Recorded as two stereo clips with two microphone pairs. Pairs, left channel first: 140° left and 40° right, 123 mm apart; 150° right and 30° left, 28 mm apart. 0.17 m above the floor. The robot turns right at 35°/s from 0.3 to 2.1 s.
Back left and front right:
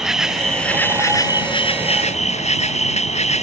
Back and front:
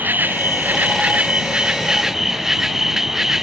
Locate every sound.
0.0 s an insect: 45° left; by 3.4 s 110° left